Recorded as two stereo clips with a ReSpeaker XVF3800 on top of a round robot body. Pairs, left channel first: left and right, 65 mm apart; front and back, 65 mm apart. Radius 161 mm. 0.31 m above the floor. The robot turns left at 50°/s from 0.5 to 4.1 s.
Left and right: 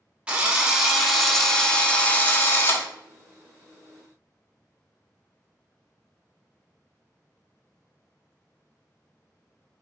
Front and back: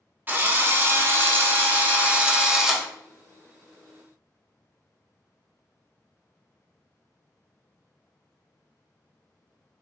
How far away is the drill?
About 0.8 m.